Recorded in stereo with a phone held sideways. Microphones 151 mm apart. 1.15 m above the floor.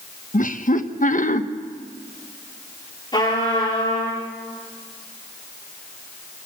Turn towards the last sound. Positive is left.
turn(degrees=30)  # may be behind; listen again after turning